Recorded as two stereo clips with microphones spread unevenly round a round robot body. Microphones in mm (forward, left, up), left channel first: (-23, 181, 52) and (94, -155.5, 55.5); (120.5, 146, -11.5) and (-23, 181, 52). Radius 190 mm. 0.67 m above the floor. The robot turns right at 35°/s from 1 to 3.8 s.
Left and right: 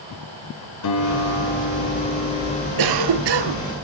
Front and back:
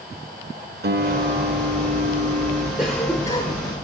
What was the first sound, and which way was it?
A guitar, 150° left.